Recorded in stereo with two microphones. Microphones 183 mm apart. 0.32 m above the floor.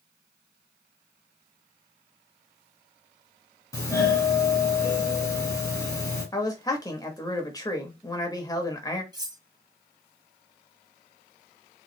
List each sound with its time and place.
3.7 s a doorbell: 20° left (ahead or behind), 1.7 m
6.3 s a man speaking: 20° left (ahead or behind), 0.9 m
9.1 s cutlery clinking: 20° right (ahead or behind), 0.8 m